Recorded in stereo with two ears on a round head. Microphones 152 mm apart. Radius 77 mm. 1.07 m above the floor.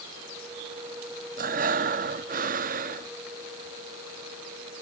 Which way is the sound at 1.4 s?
50° right (ahead or behind).